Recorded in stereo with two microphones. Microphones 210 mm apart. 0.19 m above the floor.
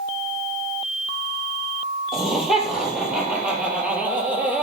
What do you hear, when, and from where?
2.1 s laughter: centre (ahead or behind), 5.5 m; by 4.6 s 10° right (ahead or behind), 4 m